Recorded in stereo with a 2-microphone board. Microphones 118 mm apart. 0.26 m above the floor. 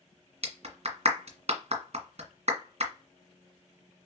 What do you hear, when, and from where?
0.4 s a clap: 60° right (ahead or behind), 1.8 m